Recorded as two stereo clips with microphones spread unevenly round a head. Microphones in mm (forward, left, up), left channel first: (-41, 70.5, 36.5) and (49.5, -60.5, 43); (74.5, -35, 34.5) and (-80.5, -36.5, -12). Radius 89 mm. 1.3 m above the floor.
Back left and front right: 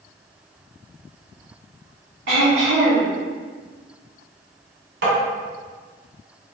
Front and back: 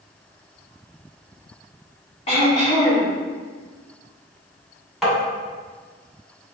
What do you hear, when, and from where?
2.3 s throat clearing: 50° right, 1.6 m
5.0 s tapping: 80° right, 1.8 m